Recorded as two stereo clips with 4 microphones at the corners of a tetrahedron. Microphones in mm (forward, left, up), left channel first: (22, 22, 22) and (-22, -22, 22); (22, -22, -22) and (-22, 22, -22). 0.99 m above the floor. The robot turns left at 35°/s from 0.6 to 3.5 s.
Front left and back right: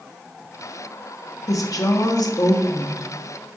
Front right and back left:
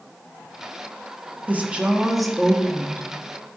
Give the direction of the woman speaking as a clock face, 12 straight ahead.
10 o'clock.